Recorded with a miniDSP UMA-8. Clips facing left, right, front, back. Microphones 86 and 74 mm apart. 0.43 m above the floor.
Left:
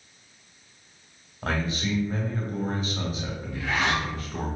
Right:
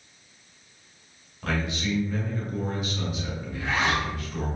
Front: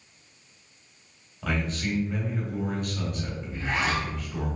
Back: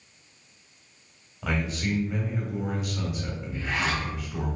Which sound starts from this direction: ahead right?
A zipper, at 3.5 s.